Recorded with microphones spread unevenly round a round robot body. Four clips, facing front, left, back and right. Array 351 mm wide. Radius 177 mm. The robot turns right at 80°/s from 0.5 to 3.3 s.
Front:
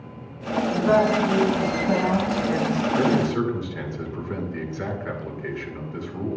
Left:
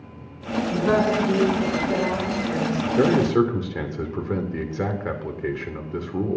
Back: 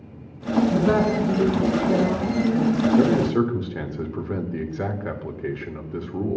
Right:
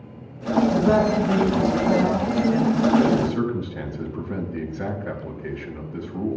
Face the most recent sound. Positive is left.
turn(degrees=105)